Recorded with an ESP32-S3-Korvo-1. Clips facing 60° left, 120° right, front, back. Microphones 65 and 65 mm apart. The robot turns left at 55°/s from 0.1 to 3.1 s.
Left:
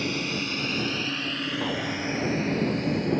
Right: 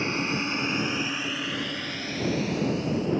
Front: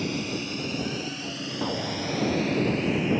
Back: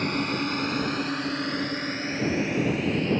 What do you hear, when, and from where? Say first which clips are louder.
0.0 s a drone: right 2 dB, back 3 dB; 175° right; by 3.2 s 85° left
1.6 s an explosion: left 4 dB, even; 30° left; by 3.1 s 55° right